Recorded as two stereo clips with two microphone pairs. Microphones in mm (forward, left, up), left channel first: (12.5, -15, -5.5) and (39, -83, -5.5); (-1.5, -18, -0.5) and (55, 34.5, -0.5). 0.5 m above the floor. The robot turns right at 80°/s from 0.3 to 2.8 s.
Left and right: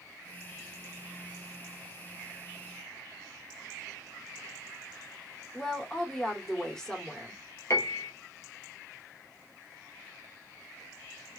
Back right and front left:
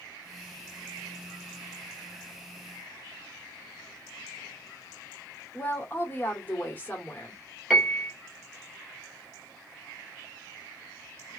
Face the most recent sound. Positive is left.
turn(degrees=130)